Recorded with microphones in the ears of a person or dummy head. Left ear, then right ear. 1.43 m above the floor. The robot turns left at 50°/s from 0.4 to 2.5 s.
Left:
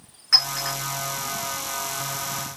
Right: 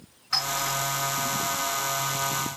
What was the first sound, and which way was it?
A clink, 35° left (ahead or behind).